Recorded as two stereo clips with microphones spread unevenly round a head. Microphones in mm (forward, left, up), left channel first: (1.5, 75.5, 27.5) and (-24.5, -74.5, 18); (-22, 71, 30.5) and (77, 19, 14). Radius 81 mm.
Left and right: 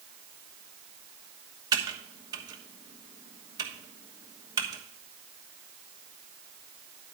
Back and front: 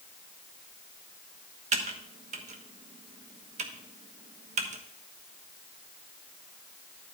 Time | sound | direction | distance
1.7 | typing on a keyboard | 35° right | 1.2 m